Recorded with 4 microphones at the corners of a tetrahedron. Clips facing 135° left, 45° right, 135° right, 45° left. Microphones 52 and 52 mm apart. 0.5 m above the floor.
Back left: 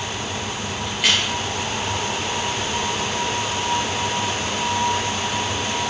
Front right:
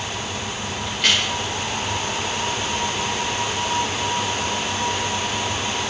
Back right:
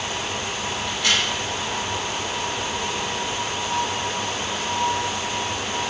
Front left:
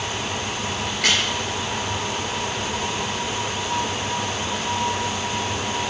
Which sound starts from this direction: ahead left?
A crack, at 0.9 s.